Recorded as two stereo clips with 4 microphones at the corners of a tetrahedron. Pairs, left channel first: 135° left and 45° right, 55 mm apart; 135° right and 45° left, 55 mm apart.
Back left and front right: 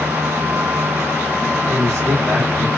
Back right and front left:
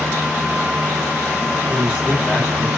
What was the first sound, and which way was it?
A man speaking, 35° right.